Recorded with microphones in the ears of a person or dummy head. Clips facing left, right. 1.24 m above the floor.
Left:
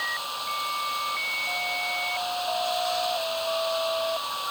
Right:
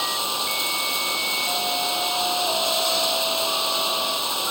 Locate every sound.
0.0 s running water: 65° right (ahead or behind)